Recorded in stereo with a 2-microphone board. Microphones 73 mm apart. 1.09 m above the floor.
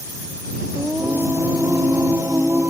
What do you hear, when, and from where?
0.8 s singing: 45° right (ahead or behind)